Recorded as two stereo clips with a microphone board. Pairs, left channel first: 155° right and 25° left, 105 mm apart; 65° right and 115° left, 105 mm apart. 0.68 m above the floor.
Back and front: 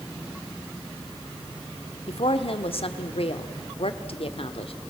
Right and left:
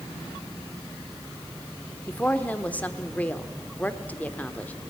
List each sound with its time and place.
2.1 s a woman speaking: 145° right, 1.5 m